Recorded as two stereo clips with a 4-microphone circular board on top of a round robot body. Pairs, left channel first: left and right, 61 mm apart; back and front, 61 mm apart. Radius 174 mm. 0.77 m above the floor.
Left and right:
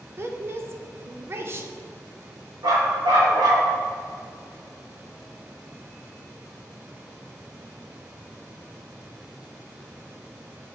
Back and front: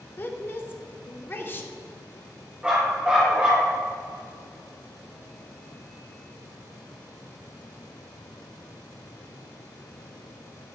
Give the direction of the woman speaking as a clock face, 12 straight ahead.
4 o'clock.